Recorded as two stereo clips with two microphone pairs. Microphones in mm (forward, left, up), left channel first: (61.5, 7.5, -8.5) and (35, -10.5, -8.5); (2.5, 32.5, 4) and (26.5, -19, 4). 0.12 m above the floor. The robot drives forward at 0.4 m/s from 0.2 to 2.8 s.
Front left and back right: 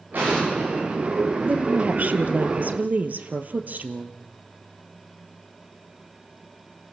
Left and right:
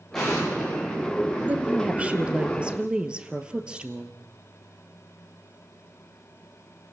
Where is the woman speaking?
120° right, 1.9 m; by 4.2 s 135° right, 2 m.